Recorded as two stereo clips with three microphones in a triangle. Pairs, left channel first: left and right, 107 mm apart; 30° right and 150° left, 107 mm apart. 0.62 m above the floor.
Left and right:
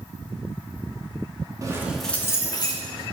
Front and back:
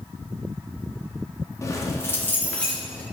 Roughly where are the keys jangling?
Ahead right.